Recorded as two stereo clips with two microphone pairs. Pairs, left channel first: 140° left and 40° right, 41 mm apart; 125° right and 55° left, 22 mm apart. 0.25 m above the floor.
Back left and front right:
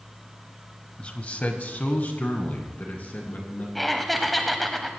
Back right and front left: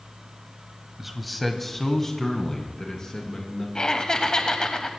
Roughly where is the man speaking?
Behind left.